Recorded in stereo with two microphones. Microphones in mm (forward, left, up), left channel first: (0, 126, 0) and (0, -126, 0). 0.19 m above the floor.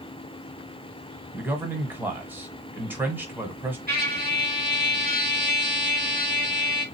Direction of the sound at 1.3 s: 5° right (ahead or behind).